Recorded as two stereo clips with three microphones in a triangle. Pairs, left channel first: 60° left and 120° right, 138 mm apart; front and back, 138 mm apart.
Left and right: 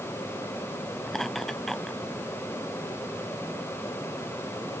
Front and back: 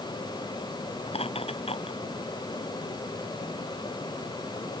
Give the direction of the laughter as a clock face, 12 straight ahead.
1 o'clock.